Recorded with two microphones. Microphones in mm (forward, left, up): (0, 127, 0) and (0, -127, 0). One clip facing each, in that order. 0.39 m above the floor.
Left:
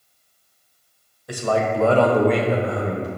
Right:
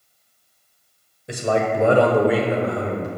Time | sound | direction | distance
1.3 | a man speaking | 25° right (ahead or behind) | 1.2 m